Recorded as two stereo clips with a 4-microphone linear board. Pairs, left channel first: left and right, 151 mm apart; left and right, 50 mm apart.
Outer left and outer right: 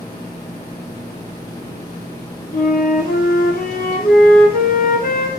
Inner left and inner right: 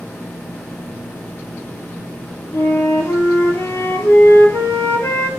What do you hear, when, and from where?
2.5 s a flute: 65° left (ahead or behind), 1.6 m